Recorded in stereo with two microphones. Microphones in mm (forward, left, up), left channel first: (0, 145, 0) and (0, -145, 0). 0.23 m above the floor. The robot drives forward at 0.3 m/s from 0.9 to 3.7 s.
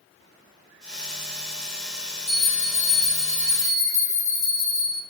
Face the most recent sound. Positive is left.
turn(degrees=15)  # may be behind; listen again after turning